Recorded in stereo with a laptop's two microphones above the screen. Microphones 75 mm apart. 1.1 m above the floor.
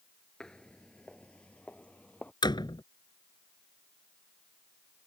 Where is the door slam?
90° left.